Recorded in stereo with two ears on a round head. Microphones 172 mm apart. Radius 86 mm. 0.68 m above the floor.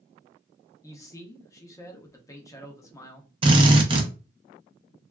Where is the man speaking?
15° left (ahead or behind), 0.6 m.